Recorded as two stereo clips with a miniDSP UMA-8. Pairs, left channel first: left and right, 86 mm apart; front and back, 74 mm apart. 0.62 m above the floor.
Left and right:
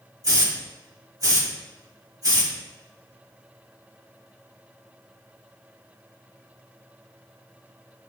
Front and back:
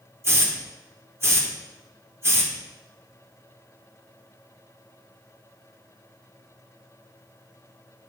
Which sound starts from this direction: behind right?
A hiss, at 0.2 s.